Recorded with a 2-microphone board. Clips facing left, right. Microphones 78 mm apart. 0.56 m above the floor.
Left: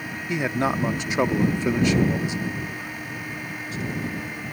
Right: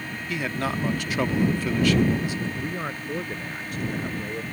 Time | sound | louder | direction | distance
0.3 | a man speaking | left 4 dB | 20° left (ahead or behind) | ?
2.6 | a man speaking | right 2 dB | 50° right (ahead or behind) | ?